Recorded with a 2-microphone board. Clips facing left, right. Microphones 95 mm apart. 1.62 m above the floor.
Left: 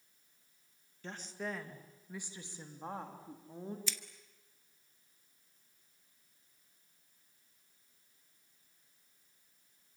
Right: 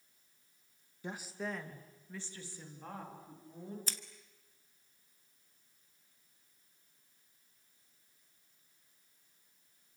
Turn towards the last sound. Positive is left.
turn(degrees=-40)  # may be behind; listen again after turning